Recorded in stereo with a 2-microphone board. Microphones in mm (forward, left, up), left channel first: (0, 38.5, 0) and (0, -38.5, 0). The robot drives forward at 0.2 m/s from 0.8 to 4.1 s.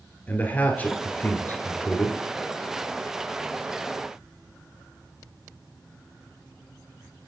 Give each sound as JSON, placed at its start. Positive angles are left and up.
{"t": 0.3, "sound": "a man speaking", "side_deg": 25, "distance_m": 1.3}